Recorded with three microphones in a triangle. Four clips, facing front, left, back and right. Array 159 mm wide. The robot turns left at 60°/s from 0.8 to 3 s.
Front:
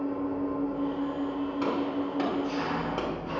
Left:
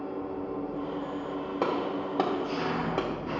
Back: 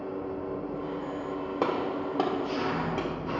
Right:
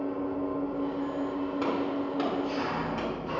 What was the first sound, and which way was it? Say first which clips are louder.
An engine running: right 3 dB, front 4 dB; 50° right.